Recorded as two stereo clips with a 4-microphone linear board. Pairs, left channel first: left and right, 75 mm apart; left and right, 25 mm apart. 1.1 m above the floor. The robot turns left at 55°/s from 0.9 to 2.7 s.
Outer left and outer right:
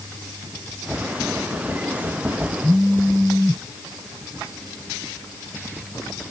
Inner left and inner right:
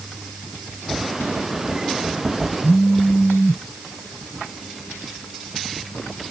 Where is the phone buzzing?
5° right (ahead or behind).